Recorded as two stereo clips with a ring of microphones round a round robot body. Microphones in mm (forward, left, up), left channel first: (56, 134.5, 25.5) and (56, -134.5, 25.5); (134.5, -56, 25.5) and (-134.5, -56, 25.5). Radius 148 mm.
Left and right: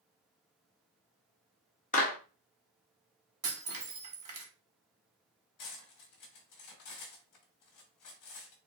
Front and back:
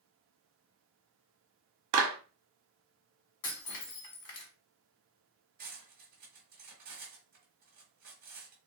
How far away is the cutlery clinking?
About 1.3 m.